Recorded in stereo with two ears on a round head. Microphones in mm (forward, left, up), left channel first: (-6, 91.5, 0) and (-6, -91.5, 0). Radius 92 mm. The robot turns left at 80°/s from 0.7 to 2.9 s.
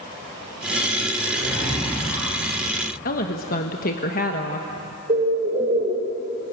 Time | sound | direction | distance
1.2 | a zipper | 105° right | 7.5 m
3.0 | a woman speaking | 45° left (ahead or behind) | 1.2 m
5.1 | a bird | 35° right (ahead or behind) | 4.5 m